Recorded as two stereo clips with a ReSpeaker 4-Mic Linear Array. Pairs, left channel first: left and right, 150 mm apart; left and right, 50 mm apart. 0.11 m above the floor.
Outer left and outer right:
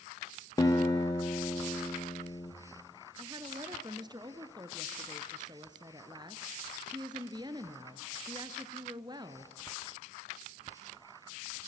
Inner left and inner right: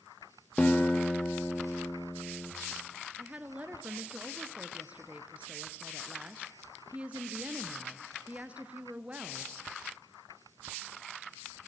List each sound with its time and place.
0.6 s a guitar: 25° left (ahead or behind), 3 m
3.2 s a woman speaking: 30° right (ahead or behind), 1.3 m